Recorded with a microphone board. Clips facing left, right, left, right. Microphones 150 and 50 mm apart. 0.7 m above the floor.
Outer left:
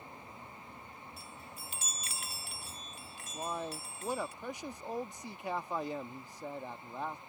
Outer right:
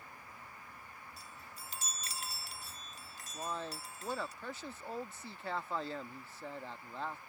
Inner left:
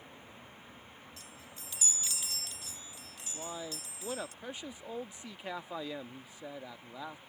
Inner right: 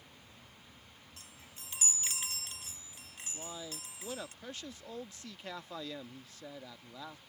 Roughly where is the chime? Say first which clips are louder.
Outer left 3 dB, inner left 4 dB; right.